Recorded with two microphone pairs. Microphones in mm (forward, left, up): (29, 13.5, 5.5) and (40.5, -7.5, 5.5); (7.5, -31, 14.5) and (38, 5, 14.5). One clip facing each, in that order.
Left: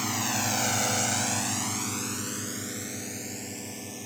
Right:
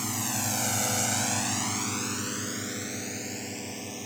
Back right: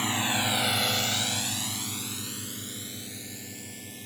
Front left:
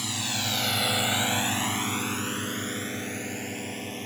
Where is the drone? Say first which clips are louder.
Left 3 dB, back right 4 dB; 175° right; by 4.1 s 15° left.